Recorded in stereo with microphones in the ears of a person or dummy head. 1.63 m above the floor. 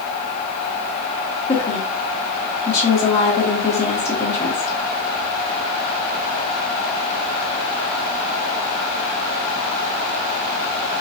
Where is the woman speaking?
25° left (ahead or behind), 1.2 m.